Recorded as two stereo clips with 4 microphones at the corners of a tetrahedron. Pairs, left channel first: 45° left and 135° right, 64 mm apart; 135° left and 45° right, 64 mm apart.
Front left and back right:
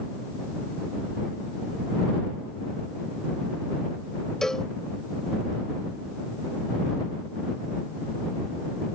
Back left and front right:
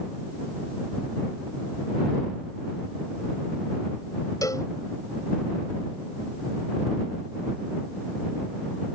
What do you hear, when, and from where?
4.4 s a cowbell: 125° left